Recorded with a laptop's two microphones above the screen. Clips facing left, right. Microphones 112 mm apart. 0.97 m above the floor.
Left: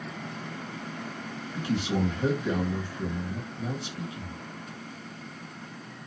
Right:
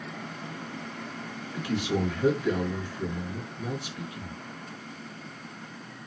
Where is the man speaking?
25° left (ahead or behind), 2 m.